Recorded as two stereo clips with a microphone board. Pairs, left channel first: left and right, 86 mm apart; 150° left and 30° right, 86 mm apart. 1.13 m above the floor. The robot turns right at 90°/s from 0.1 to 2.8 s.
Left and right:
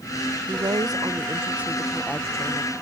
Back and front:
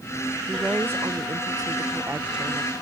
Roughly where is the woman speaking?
Behind right.